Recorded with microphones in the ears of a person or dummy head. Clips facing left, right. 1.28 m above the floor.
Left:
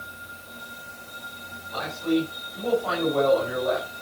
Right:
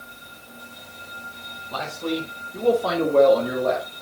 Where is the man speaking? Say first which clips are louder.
Left 3 dB; 70° right (ahead or behind), 3.5 m; by 3.9 s 85° right, 3 m.